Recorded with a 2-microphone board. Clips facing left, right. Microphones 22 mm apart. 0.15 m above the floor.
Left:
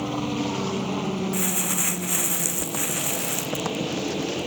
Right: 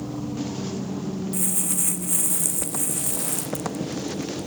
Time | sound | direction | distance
0.0 | a helicopter | 70° left (ahead or behind) | ?
1.3 | crumpling | 40° left (ahead or behind) | ?